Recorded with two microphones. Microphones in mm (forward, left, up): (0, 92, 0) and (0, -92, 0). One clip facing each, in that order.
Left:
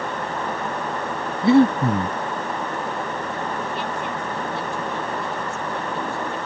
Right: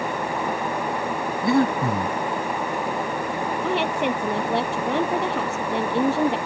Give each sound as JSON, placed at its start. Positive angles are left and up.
{"t": 1.4, "sound": "breathing", "side_deg": 25}
{"t": 3.6, "sound": "a woman speaking", "side_deg": -70}